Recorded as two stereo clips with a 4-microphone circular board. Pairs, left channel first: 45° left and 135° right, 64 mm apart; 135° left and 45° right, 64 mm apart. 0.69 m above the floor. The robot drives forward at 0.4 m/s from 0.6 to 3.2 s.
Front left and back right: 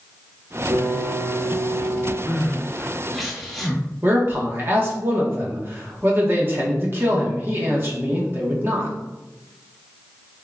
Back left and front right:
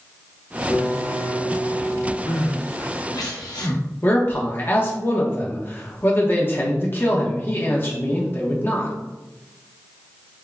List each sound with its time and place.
0.7 s a piano: 150° right, 0.8 m; by 2.2 s 165° right, 1.3 m
2.3 s crying: 110° left, 0.6 m; by 3.8 s 135° left, 0.8 m
4.0 s a man speaking: straight behind, 1.0 m